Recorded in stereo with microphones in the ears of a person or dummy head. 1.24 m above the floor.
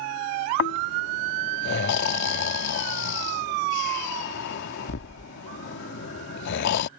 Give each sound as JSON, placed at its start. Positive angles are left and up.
{"t": 0.6, "sound": "snoring", "side_deg": 60}